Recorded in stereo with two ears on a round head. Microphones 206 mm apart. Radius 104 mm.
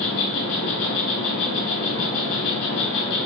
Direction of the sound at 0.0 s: 75° left (ahead or behind).